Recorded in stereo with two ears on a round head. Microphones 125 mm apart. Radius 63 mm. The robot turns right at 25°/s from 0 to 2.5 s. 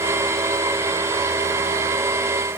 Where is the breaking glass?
I don't hear breaking glass.